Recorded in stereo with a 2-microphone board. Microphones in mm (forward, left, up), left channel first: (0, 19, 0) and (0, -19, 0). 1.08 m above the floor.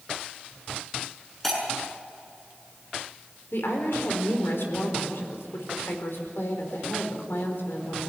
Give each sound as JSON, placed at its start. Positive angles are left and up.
{"t": 1.4, "sound": "breaking glass", "side_deg": 10, "distance_m": 6.0}
{"t": 3.5, "sound": "a woman speaking", "side_deg": 80, "distance_m": 4.5}